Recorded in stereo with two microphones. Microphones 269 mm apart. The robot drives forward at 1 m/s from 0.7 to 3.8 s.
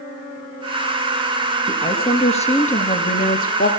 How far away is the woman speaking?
About 3 m.